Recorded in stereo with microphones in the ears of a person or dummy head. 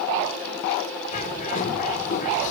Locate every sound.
1.1 s a bird: 45° left (ahead or behind), 3 m